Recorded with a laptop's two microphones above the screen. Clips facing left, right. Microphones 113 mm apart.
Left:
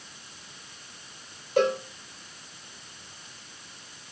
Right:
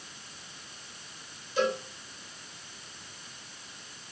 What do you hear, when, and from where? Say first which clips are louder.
1.6 s a cowbell: left 5 dB; 60° left (ahead or behind), 3 m